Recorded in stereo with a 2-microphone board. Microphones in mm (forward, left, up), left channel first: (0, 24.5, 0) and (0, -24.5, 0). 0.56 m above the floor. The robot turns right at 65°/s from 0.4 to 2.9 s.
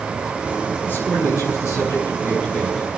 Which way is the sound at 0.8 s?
35° left.